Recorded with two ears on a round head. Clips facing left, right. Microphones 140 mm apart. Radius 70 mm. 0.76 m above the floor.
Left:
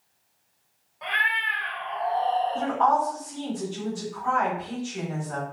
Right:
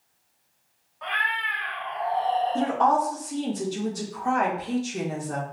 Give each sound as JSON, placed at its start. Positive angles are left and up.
{"t": 1.0, "sound": "a cat meowing", "side_deg": 25, "distance_m": 1.1}
{"t": 2.5, "sound": "a woman speaking", "side_deg": -45, "distance_m": 1.3}